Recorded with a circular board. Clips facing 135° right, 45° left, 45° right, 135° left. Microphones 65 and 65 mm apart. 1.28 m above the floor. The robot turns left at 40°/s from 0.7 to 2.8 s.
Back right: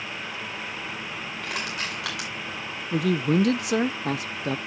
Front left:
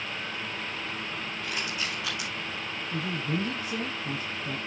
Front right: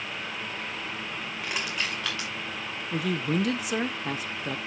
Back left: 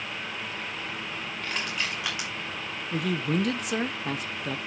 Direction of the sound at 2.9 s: 135° right.